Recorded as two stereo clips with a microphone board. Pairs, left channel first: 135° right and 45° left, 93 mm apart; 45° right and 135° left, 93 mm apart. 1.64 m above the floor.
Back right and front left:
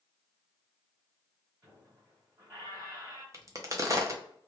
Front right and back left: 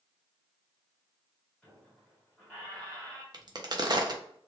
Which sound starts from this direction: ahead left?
A squeak, at 1.6 s.